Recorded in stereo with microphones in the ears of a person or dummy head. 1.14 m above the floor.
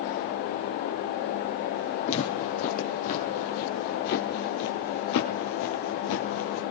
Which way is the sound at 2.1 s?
40° left (ahead or behind).